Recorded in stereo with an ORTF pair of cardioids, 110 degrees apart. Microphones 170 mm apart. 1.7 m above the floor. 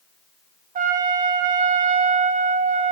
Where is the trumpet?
45° right, 1.3 m.